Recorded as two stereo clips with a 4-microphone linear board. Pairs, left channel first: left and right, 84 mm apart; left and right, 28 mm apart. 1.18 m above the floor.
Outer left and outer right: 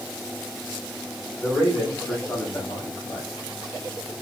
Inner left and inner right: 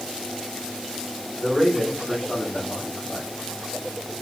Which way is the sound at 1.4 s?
25° left (ahead or behind).